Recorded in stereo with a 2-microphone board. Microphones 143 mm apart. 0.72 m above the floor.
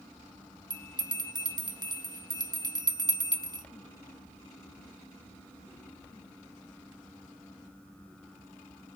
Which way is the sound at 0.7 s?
30° right (ahead or behind).